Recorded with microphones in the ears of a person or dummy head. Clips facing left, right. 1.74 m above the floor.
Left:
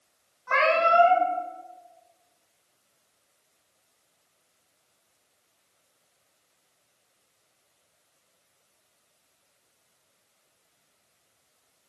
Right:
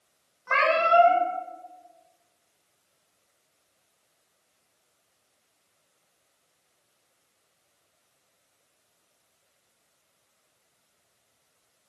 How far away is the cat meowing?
About 1.0 m.